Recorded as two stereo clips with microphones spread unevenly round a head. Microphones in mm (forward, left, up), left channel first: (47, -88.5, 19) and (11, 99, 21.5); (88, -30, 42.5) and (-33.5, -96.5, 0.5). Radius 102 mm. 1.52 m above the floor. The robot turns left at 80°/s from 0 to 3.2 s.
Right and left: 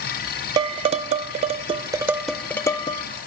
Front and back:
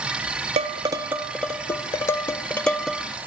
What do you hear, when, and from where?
0.6 s dishes clattering: 155° left, 0.5 m; by 3.0 s 45° right, 0.5 m